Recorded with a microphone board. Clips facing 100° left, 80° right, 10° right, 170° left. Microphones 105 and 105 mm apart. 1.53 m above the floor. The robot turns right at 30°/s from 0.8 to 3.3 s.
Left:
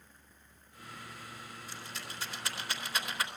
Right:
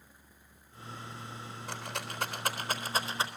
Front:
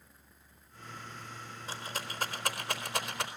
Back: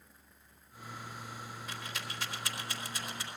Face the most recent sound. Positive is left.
turn(degrees=-15)